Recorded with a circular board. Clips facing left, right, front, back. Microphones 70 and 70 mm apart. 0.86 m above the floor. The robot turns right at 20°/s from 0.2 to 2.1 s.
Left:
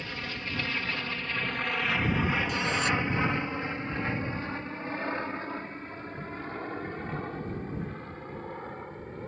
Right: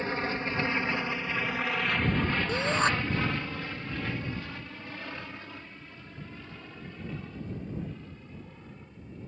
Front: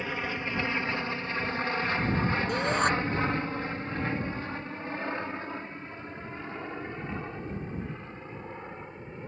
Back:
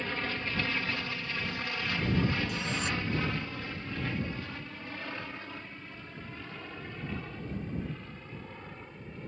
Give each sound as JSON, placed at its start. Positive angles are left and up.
{"t": 0.0, "sound": "an aircraft", "azimuth_deg": -70}
{"t": 2.5, "sound": "a shout", "azimuth_deg": -35}